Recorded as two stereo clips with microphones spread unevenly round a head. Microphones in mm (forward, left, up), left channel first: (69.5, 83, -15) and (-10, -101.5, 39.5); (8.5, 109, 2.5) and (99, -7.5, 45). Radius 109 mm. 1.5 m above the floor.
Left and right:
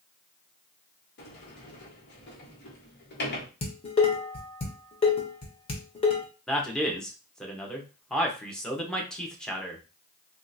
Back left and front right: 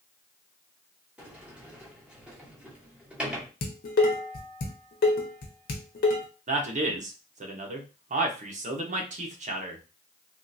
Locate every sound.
1.2 s a sliding door: 30° left, 1.4 m
3.6 s dishes clattering: 135° left, 0.8 m
6.5 s a man speaking: 20° right, 1.0 m